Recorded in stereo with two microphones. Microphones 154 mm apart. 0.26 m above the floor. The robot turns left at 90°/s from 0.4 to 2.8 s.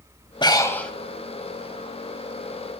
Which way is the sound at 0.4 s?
50° left.